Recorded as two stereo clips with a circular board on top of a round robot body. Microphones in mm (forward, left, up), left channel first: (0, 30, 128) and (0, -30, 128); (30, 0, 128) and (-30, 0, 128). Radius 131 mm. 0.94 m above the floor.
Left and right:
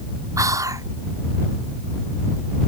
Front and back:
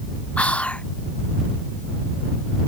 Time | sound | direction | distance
0.4 | whispering | 70° right | ?